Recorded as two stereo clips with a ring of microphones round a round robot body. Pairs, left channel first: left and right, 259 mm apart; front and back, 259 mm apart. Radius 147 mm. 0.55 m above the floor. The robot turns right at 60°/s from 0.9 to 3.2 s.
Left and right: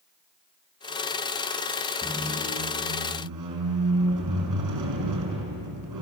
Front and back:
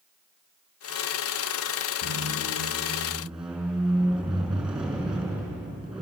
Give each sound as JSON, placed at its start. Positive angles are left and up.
{"t": 2.0, "sound": "a squeak", "azimuth_deg": -165, "distance_m": 5.0}